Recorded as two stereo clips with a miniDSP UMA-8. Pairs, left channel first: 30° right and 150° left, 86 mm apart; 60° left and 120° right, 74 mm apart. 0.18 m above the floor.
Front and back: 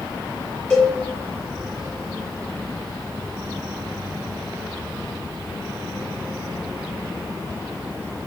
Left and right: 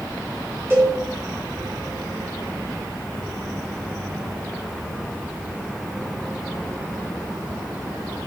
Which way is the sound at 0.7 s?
100° right.